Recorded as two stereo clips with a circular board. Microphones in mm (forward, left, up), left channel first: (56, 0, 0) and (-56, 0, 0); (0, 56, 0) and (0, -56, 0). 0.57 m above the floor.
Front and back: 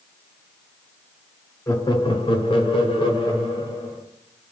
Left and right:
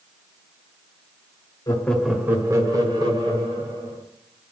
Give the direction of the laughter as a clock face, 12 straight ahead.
10 o'clock.